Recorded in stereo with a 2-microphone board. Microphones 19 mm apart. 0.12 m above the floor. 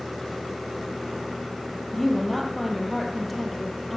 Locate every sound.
1.9 s a woman speaking: 5° left (ahead or behind), 3 m